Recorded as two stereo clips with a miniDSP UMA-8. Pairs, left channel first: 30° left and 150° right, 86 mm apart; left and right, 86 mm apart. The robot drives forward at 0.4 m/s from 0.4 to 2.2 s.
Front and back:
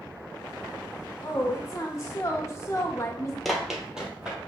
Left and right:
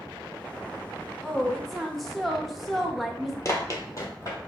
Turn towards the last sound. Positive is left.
turn(degrees=135)